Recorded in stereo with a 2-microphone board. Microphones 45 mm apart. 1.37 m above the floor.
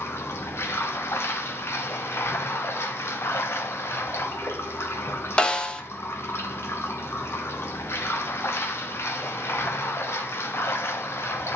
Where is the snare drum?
20° left (ahead or behind), 0.7 m.